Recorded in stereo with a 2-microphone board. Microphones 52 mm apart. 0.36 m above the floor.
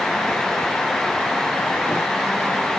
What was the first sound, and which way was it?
Only background noise.